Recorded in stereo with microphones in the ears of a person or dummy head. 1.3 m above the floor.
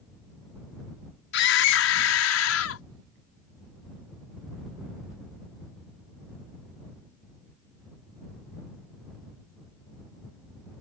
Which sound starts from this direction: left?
A scream, at 1.3 s.